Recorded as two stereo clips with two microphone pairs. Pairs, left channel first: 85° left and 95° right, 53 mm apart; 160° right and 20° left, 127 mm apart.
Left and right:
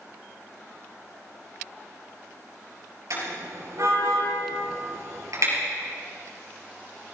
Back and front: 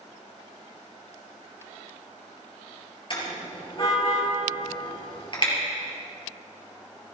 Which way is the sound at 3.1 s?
110° right.